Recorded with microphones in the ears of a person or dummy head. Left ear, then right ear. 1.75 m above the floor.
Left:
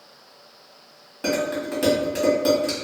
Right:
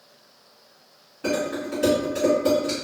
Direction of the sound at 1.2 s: 40° left (ahead or behind).